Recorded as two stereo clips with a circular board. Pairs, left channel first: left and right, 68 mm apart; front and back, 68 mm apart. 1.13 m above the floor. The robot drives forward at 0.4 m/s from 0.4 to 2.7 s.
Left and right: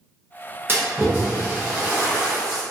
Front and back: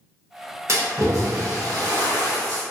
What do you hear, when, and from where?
0.7 s a splash: 140° right, 0.6 m; by 2.6 s 165° right, 1.3 m